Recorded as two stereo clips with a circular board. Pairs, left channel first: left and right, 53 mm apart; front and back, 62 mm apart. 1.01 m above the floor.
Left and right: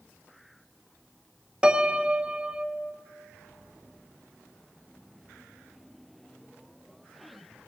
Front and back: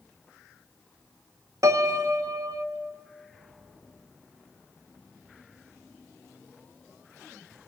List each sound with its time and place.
1.6 s a piano: 160° right, 1.0 m